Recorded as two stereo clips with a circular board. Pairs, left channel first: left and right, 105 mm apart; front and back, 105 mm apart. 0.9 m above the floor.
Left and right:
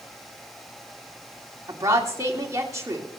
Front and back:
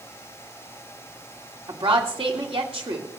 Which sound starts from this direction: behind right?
A woman speaking, at 1.7 s.